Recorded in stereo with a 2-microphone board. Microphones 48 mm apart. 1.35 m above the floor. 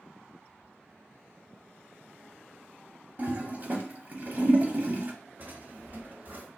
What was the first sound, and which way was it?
A toilet flushing, 40° right (ahead or behind).